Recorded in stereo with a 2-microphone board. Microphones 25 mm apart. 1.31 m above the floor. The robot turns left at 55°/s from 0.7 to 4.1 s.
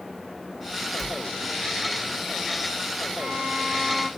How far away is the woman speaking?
No woman speaking in this recording.